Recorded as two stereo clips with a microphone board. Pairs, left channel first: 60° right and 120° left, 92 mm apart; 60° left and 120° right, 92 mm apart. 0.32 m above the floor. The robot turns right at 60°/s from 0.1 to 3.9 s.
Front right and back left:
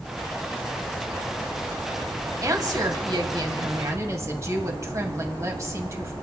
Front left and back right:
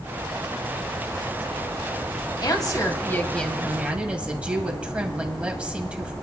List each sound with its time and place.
2.4 s a woman speaking: 75° left, 1.9 m; by 6.1 s 165° left, 1.9 m